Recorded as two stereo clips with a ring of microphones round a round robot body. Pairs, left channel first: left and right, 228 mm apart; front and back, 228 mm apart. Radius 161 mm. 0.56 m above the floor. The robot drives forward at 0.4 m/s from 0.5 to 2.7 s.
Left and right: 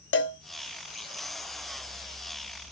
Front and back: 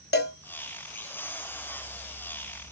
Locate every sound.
0.1 s a cowbell: 50° left, 0.8 m